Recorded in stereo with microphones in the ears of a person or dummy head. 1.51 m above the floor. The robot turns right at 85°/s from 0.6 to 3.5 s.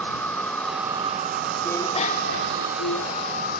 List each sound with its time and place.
0.0 s an insect: 165° left; by 3.6 s 55° left
1.6 s a bicycle bell: 5° left; by 3.2 s 140° left